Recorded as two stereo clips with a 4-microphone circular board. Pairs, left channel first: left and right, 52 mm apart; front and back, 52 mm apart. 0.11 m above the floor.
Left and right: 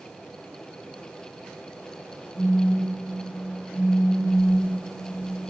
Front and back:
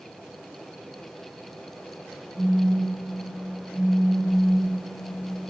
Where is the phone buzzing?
Straight ahead, 4.5 m.